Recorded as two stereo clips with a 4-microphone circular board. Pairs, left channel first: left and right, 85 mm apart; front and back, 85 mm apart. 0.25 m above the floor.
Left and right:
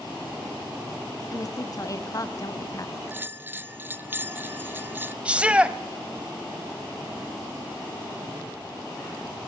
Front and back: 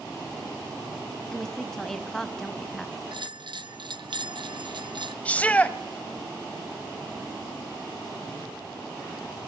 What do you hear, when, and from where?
1.3 s a woman speaking: 80° left, 1.8 m
3.1 s a bell: 155° right, 0.9 m
5.2 s a shout: 40° right, 0.9 m